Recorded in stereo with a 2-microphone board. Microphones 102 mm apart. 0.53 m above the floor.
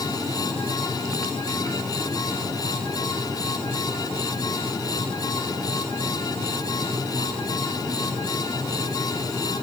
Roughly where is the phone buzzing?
I don't hear a phone buzzing.